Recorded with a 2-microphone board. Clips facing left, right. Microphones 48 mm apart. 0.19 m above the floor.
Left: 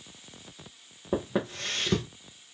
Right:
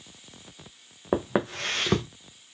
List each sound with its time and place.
1.1 s footsteps: 80° right, 0.9 m